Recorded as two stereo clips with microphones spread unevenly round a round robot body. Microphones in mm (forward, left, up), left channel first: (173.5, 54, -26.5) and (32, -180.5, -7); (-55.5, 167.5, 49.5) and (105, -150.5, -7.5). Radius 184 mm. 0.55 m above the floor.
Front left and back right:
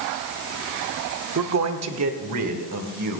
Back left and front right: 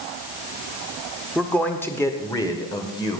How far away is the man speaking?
About 1.2 m.